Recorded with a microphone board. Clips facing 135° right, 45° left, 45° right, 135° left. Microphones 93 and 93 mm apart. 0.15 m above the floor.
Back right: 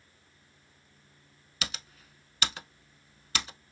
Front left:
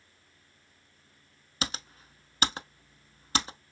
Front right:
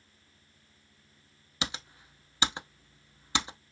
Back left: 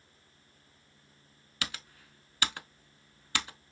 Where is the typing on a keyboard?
10° left, 0.5 m.